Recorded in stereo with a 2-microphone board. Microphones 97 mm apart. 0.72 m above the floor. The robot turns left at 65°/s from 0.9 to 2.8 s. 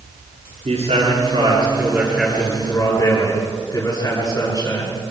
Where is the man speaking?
90° right, 8.5 m; by 5.0 s 145° left, 8.5 m.